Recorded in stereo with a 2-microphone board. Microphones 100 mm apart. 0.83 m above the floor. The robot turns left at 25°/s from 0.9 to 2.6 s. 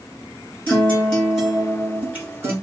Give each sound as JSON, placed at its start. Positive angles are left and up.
{"t": 0.7, "sound": "a guitar", "azimuth_deg": 15, "distance_m": 2.5}